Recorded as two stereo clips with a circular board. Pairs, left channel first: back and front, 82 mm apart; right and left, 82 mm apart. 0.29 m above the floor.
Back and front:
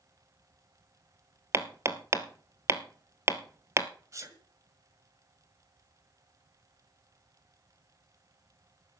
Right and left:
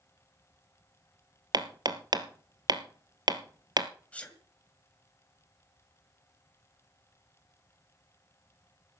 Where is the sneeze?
20° right, 1.9 m.